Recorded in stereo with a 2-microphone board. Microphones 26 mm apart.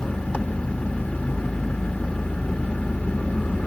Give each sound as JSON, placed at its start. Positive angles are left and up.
{"t": 0.0, "sound": "an engine running", "side_deg": 65, "distance_m": 2.5}